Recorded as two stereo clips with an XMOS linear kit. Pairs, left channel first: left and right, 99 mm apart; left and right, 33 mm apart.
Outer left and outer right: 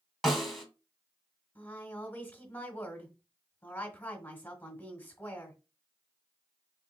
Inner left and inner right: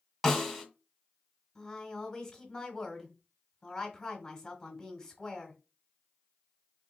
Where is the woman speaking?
20° left (ahead or behind), 1.2 m.